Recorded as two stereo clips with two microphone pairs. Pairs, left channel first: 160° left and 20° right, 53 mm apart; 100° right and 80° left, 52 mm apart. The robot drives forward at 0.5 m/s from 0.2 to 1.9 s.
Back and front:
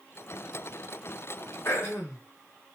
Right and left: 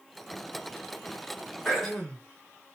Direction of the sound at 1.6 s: Straight behind.